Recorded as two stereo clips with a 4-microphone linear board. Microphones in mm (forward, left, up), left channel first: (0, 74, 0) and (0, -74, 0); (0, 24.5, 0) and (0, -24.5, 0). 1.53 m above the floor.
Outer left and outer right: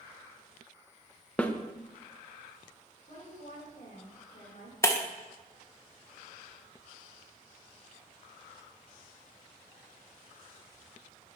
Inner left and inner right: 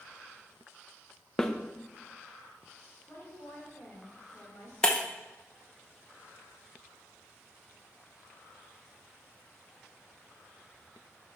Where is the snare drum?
10° left (ahead or behind), 0.5 m.